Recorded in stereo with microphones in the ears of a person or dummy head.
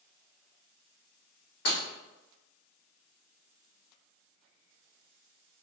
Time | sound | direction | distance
1.6 | breaking glass | 60° left (ahead or behind) | 1.7 m